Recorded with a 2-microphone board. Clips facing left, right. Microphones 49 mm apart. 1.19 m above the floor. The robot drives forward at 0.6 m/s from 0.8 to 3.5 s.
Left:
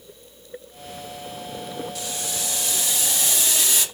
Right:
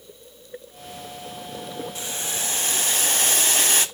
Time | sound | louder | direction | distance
1.9 | boiling | even | 30° right (ahead or behind) | 1.1 m